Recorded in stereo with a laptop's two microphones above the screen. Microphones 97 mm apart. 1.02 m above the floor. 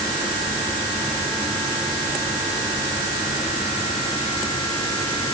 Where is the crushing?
I don't hear crushing.